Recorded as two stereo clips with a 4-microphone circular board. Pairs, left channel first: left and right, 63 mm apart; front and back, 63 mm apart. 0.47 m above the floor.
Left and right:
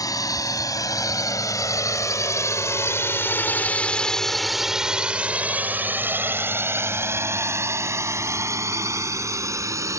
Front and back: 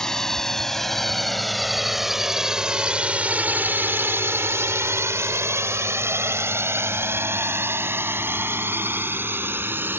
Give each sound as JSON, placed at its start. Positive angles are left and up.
{"t": 0.0, "sound": "a drone", "azimuth_deg": 80}